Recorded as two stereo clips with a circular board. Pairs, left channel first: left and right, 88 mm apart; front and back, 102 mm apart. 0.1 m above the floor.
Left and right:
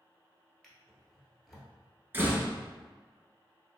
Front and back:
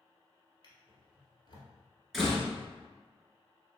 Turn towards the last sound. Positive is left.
turn(degrees=-80)